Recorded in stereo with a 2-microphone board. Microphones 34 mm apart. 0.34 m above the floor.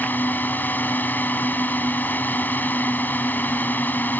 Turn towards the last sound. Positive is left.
turn(degrees=65)  # may be behind; listen again after turning